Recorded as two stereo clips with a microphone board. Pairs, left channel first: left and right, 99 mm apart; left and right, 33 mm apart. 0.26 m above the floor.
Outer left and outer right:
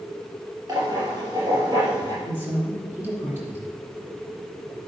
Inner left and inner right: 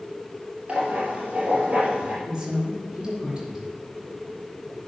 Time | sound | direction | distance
0.7 | writing | 45° right (ahead or behind) | 4.5 m
2.2 | a woman speaking | 25° right (ahead or behind) | 4 m